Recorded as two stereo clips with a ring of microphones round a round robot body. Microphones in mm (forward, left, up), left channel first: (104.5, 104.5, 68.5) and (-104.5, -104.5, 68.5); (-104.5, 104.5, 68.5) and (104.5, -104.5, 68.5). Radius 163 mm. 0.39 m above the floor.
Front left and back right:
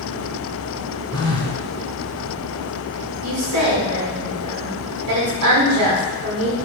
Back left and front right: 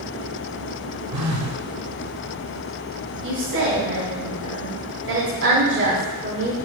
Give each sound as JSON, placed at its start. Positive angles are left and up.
{"t": 1.1, "sound": "a phone buzzing", "azimuth_deg": -30, "distance_m": 2.0}
{"t": 3.2, "sound": "a woman speaking", "azimuth_deg": -95, "distance_m": 5.0}